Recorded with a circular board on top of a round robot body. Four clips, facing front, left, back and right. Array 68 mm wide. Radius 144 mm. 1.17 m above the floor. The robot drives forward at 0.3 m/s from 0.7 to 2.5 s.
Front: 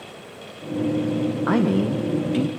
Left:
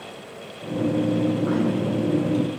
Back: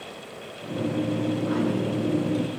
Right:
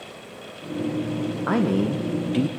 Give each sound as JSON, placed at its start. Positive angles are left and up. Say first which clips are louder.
{"t": 1.5, "sound": "a man speaking", "louder": "right 1 dB, front 5 dB", "azimuth_deg": -35, "distance_m": 0.9}